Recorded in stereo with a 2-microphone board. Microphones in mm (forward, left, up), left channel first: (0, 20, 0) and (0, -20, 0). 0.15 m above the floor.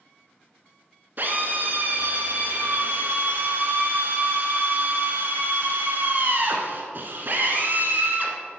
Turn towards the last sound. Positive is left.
turn(degrees=-45)  # may be behind; listen again after turning